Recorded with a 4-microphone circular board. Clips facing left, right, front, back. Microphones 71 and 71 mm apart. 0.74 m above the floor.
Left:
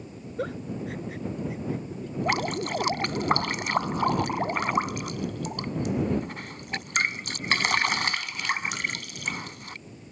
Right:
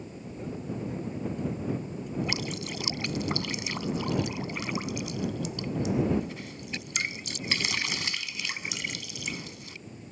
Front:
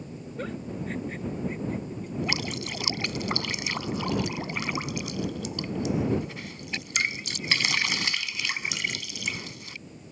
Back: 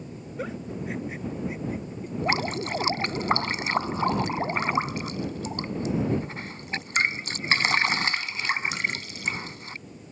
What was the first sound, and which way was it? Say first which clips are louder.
A giggle: left 4 dB, back 1 dB; 100° left.